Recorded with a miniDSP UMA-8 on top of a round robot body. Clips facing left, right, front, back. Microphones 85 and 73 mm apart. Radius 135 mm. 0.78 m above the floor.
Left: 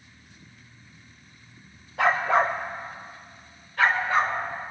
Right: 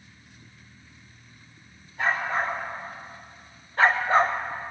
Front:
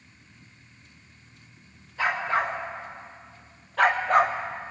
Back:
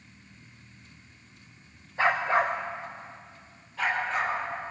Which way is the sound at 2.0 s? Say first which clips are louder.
Left 5 dB, back 1 dB; 115° left.